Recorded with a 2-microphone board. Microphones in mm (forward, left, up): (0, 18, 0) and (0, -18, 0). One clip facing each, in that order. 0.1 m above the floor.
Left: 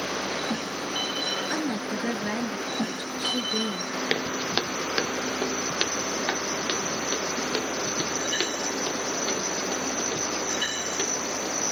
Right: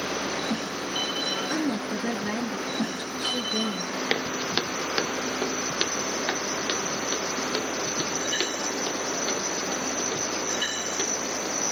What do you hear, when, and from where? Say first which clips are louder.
1.5 s a woman speaking: right 1 dB; 15° left (ahead or behind), 1.5 m
4.1 s footsteps: even; 10° right (ahead or behind), 0.6 m; by 11.6 s 20° left (ahead or behind), 4.5 m